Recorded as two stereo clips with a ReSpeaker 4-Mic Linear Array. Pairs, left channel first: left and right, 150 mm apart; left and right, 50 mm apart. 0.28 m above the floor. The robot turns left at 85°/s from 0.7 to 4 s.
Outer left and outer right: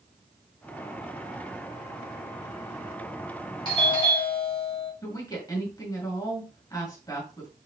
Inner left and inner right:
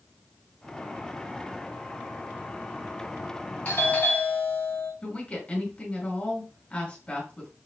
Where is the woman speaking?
25° left (ahead or behind), 1.8 m.